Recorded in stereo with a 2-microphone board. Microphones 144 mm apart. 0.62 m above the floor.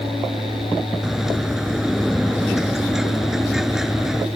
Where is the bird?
5° right (ahead or behind).